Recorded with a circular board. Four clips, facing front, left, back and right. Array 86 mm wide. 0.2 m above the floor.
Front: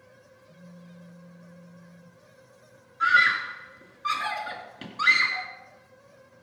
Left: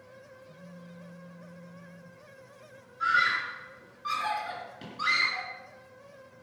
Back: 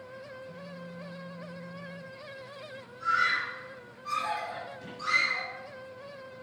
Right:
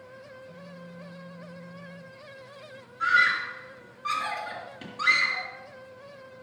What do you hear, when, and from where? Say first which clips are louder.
0.5 s a phone buzzing: right 4 dB, back 7 dB; 175° right, 5 m
3.0 s a scream: right 3 dB, front 6 dB; 20° right, 3.5 m